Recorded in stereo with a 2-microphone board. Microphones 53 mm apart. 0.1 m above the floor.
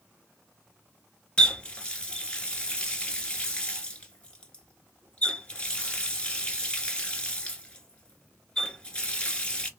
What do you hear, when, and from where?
1.4 s a running tap: 20° left (ahead or behind), 1.1 m